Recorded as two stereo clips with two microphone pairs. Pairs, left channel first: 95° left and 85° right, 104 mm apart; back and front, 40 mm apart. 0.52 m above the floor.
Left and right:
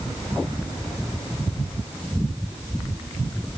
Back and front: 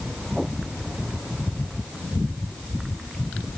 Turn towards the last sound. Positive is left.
No sound to turn to.